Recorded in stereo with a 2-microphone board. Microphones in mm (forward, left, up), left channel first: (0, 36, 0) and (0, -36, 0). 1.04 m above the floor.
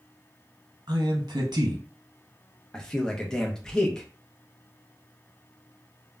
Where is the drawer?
No drawer in this recording.